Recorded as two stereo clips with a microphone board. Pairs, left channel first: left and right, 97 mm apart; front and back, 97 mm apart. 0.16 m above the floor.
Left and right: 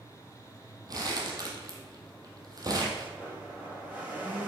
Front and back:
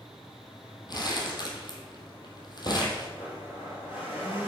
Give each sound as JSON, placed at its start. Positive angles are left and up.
{"t": 0.9, "sound": "crumpling", "azimuth_deg": -40, "distance_m": 2.5}
{"t": 3.2, "sound": "a blender", "azimuth_deg": -20, "distance_m": 5.0}